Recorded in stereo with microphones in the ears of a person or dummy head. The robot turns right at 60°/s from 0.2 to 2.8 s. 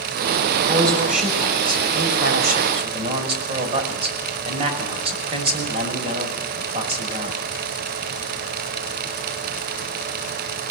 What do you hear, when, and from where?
0.6 s a man speaking: 165° right, 6 m; by 7.4 s 30° right, 6 m